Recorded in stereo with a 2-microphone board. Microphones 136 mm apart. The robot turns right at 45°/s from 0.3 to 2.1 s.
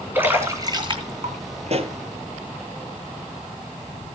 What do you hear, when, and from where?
0.1 s a splash: 15° right (ahead or behind), 2.5 m; by 1.4 s 50° right (ahead or behind), 2.5 m
1.7 s a pop: 55° right (ahead or behind), 1.0 m; by 2.0 s 40° right (ahead or behind), 1.0 m